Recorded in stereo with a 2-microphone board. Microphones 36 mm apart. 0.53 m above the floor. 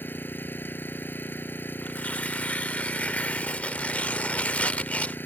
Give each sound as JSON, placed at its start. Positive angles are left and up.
{"t": 0.0, "sound": "an engine running", "side_deg": 80}
{"t": 1.8, "sound": "tearing paper", "side_deg": 45}